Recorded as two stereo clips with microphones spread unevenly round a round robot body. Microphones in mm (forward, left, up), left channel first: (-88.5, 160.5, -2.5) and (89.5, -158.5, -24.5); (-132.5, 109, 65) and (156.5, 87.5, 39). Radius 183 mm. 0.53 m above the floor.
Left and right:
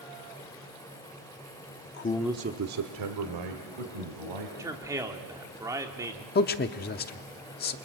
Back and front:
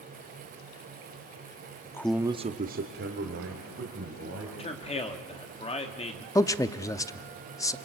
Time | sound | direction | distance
1.9 | a man speaking | 100° left | 0.9 m
4.6 | a man speaking | 125° right | 1.4 m
6.3 | a man speaking | 100° left | 0.7 m